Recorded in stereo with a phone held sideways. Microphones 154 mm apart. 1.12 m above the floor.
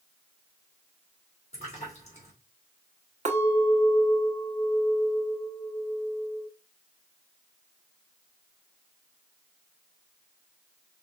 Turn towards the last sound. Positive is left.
turn(degrees=-50)  # may be behind; listen again after turning